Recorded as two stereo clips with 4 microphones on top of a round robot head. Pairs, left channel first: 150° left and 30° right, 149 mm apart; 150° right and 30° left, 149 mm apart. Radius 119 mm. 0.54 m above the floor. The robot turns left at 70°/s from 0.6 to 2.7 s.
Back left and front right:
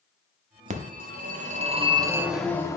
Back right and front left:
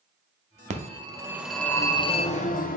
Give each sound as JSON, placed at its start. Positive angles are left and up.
{"t": 0.7, "sound": "a phone ringing", "azimuth_deg": 0, "distance_m": 0.7}